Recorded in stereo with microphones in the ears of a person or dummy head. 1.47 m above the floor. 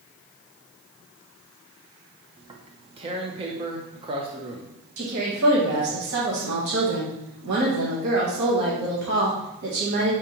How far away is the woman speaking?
About 1.2 m.